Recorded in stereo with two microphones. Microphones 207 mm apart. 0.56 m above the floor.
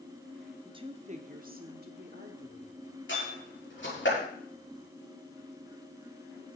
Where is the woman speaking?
20° right (ahead or behind), 1.1 m; by 2.8 s 60° right (ahead or behind), 2.5 m.